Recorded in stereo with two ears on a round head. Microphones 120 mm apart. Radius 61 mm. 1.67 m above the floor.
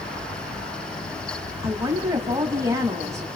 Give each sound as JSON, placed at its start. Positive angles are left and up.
{"t": 1.6, "sound": "a woman speaking", "side_deg": -25, "distance_m": 3.0}